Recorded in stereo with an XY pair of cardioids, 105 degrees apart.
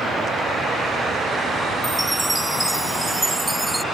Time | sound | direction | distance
1.8 | a chime | 5° right | ?